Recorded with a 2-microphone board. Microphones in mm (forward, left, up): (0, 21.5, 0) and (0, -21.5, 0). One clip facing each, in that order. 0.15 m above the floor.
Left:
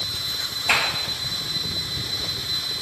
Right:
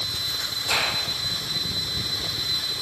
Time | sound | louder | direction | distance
0.7 | a clap | left 4 dB | 65° left (ahead or behind) | 3 m